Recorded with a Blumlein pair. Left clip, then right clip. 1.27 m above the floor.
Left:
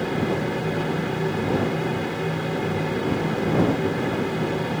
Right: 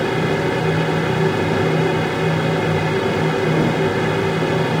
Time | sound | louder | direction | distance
0.0 | a fan | right 6 dB | 65° right | ?